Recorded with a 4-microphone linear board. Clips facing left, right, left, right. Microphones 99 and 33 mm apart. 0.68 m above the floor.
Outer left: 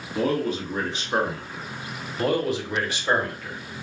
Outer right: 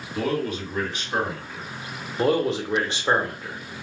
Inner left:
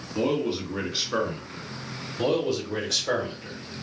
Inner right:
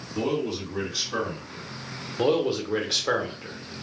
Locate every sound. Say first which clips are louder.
0.1 s a man speaking: outer left 2 dB, inner left 2 dB; 30° left (ahead or behind), 1.7 m
2.2 s a man speaking: outer right 2 dB, inner right 2 dB; 30° right (ahead or behind), 0.8 m